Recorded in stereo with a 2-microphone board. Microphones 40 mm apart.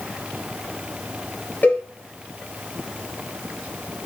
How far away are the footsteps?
No footsteps in this recording.